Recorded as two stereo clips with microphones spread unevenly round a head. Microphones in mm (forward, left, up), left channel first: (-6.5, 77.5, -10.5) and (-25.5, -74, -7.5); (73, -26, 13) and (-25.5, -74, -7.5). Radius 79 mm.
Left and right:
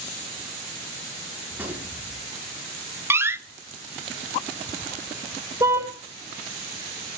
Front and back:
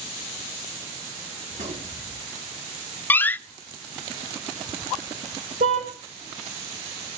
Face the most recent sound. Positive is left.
turn(degrees=-165)